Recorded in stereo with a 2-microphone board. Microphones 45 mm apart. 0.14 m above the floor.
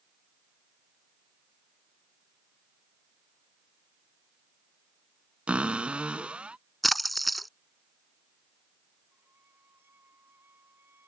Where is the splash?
Centre (ahead or behind).